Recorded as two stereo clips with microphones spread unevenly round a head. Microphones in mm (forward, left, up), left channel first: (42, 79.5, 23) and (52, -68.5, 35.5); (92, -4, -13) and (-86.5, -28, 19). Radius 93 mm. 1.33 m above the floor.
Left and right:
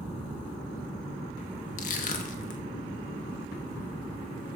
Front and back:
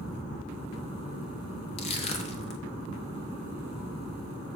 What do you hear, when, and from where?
1.8 s crushing: 70° left, 0.9 m